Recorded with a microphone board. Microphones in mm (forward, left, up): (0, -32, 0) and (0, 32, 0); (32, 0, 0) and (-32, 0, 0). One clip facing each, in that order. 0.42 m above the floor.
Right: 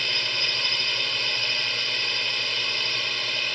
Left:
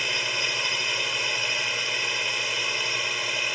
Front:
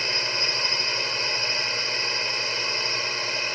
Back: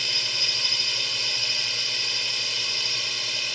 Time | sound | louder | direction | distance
0.0 | a drone | left 1 dB, front 4 dB | 20° left | ?